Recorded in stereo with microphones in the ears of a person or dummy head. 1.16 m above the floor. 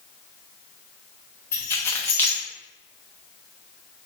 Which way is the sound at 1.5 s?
15° left (ahead or behind).